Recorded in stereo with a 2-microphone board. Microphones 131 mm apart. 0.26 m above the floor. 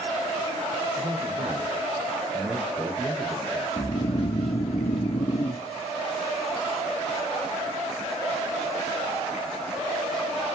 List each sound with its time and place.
1.0 s a man speaking: 35° right (ahead or behind), 4.5 m; by 3.9 s 10° left (ahead or behind), 4.5 m
3.8 s snoring: 50° left (ahead or behind), 1.0 m